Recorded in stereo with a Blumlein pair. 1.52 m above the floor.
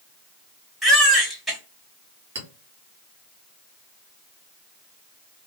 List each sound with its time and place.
0.8 s a baby crying: straight ahead, 2 m
2.4 s a clink: 55° right, 1.6 m